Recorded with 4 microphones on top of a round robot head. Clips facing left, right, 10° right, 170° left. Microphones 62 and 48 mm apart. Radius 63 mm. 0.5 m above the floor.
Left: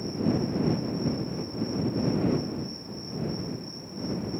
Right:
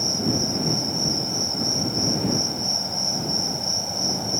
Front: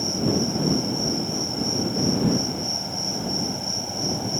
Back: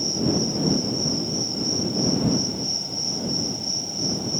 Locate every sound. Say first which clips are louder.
0.0 s an insect: right 1 dB, even; 80° right